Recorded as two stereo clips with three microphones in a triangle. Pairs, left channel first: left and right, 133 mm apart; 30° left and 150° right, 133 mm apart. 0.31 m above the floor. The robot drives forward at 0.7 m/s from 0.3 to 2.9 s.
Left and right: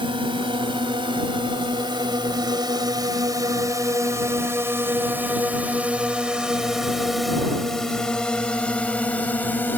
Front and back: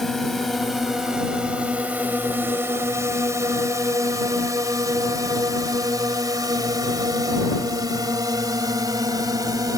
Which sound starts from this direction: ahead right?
A drone, at 0.0 s.